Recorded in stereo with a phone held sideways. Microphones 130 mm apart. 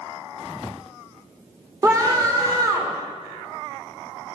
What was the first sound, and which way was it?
A scream, 25° right (ahead or behind).